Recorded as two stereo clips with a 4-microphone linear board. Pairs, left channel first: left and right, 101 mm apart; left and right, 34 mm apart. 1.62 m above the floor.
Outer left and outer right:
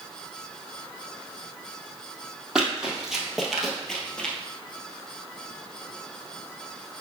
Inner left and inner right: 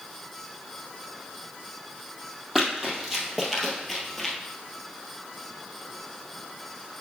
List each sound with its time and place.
2.5 s running footsteps: 10° right (ahead or behind), 2.0 m; by 4.3 s 10° left (ahead or behind), 1.6 m